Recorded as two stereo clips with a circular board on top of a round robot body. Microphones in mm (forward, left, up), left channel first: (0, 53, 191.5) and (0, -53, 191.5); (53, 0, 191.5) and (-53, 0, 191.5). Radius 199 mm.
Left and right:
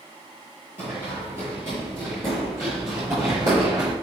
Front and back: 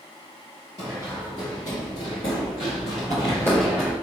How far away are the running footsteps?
About 1.5 m.